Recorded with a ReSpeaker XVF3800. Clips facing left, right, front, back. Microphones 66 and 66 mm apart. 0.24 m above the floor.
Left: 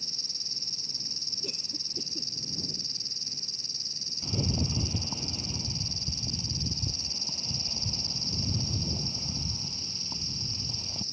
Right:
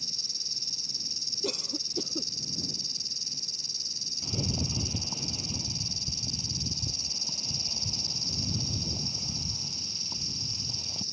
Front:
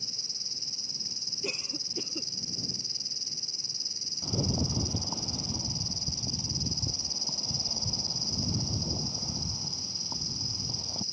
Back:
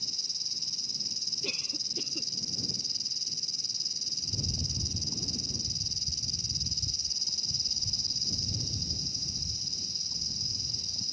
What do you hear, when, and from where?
0.0 s an insect: 50° left
1.4 s a cough: 75° right
4.2 s a rattle: 5° left